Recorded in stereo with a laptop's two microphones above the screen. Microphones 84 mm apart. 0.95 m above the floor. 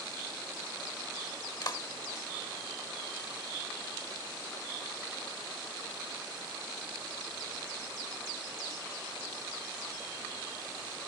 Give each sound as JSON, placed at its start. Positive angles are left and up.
{"t": 1.6, "sound": "a clap", "side_deg": 55, "distance_m": 1.5}